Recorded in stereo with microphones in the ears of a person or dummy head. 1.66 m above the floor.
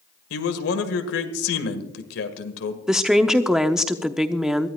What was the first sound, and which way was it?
A man speaking, 85° left.